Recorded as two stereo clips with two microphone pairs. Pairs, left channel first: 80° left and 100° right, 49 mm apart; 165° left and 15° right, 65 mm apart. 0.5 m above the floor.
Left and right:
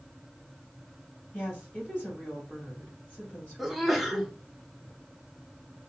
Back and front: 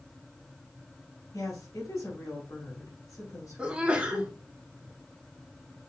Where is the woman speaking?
135° left, 2.5 m.